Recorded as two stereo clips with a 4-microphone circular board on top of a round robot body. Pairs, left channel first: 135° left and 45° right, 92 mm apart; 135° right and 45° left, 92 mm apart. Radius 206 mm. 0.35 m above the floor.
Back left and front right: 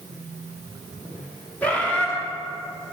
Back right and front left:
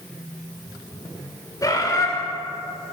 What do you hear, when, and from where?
1.6 s a bird: 155° right, 1.6 m